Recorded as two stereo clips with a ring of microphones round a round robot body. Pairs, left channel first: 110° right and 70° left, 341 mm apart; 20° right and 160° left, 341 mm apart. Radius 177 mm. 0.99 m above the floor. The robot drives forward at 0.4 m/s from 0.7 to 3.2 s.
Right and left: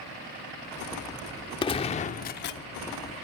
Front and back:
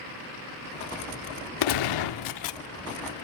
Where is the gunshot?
35° right, 1.0 m; by 2.6 s 60° right, 0.8 m.